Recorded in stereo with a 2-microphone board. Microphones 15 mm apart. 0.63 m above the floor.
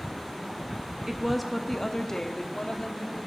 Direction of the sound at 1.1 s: 30° right (ahead or behind).